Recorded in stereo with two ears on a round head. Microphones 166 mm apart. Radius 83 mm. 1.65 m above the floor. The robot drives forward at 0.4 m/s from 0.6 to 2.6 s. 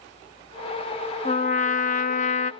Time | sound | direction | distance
1.2 | a trumpet | 35° left (ahead or behind) | 0.6 m